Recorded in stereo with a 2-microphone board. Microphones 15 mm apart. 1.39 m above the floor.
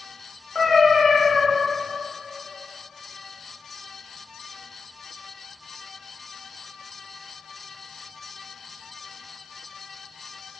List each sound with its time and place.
0.6 s a cat meowing: 20° left (ahead or behind), 1.1 m